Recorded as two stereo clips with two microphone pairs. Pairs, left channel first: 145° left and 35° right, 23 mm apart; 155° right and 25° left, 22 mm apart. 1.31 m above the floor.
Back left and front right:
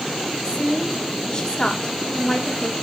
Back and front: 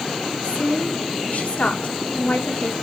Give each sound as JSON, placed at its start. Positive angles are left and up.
{"t": 0.4, "sound": "a woman speaking", "azimuth_deg": -170, "distance_m": 2.5}